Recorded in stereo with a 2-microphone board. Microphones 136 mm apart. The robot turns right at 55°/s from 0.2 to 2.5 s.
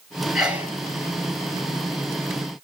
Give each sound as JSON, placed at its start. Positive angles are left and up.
{"t": 0.3, "sound": "a sneeze", "side_deg": 0, "distance_m": 2.0}